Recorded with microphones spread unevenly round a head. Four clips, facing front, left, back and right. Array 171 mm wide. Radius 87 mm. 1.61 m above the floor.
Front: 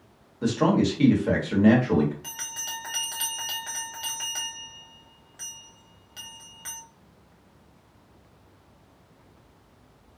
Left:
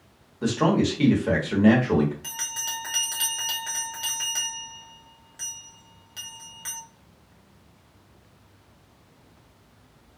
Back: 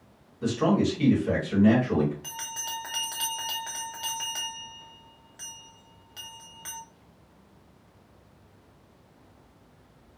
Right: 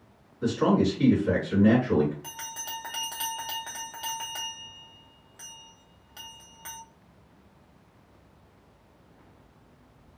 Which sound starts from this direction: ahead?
A bell, at 2.2 s.